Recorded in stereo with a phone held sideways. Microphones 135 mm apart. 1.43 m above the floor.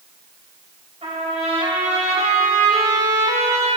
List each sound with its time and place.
1.0 s a trumpet: 50° right (ahead or behind), 4 m